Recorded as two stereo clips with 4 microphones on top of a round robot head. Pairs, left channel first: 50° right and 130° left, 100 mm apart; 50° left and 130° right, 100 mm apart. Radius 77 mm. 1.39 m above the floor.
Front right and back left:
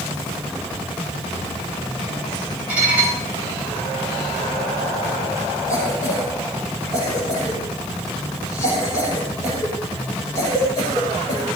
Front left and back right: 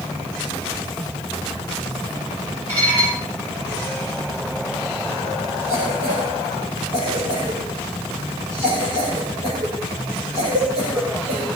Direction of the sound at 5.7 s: 115° right.